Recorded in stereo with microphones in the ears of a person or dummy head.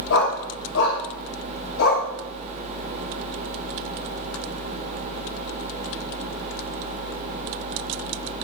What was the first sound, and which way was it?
A dog barking, 70° left (ahead or behind).